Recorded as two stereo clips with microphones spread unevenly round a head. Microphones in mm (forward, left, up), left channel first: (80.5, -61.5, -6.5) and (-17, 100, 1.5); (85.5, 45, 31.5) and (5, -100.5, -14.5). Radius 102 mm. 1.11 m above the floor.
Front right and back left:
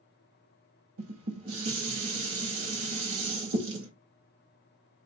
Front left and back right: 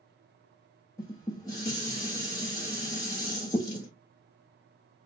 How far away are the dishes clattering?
About 1.0 m.